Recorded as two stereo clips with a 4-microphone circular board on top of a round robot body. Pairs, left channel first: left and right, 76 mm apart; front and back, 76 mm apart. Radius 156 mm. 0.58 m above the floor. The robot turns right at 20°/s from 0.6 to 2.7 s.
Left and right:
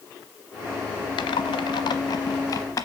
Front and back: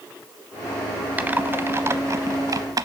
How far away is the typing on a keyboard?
About 0.7 m.